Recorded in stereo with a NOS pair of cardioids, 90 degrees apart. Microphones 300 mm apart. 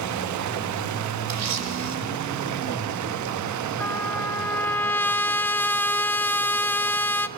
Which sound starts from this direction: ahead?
A trumpet, at 3.8 s.